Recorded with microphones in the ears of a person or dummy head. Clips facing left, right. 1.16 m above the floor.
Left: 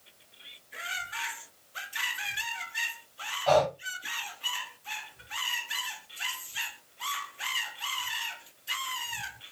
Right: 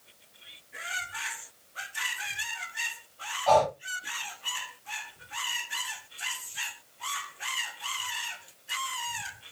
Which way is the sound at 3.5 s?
25° left (ahead or behind).